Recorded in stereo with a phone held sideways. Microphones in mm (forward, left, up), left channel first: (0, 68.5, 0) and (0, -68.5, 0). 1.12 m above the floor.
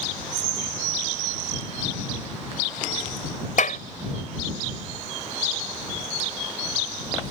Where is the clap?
70° left (ahead or behind).